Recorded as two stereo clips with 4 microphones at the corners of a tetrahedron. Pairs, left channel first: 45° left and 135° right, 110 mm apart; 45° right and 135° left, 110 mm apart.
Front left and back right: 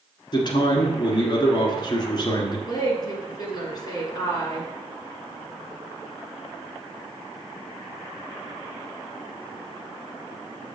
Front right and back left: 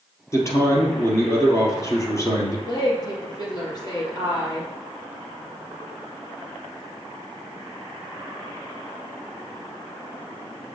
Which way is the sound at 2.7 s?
Straight ahead.